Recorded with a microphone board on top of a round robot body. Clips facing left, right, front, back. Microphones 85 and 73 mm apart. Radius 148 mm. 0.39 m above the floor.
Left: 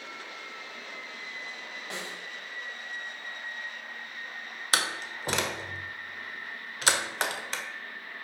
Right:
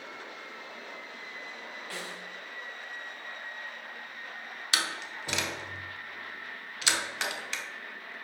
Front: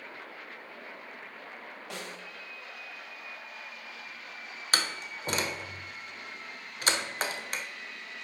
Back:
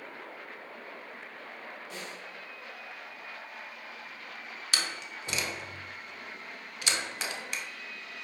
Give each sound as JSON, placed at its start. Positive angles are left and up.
{"t": 1.9, "sound": "a snare drum", "azimuth_deg": 20, "distance_m": 1.9}
{"t": 4.7, "sound": "a door slam", "azimuth_deg": 45, "distance_m": 1.2}